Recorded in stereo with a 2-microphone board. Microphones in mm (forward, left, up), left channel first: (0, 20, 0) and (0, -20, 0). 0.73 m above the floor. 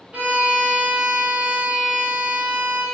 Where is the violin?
35° right (ahead or behind), 0.9 m.